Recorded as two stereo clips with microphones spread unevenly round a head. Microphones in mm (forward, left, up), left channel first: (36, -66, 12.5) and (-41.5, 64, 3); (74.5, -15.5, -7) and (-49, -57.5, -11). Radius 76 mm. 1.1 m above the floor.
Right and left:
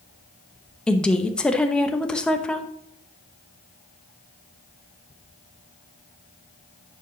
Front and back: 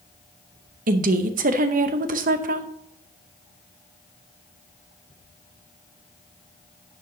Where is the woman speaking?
145° right, 0.8 m.